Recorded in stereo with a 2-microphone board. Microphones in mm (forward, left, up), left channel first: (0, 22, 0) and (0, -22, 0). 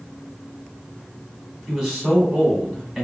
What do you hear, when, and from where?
1.7 s a man speaking: 5° right (ahead or behind), 1.4 m